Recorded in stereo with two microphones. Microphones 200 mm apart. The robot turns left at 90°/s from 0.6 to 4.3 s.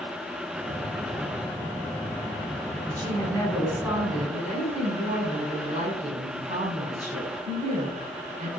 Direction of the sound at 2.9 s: 70° left.